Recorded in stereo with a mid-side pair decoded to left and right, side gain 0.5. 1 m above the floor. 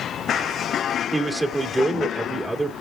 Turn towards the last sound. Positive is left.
turn(degrees=-15)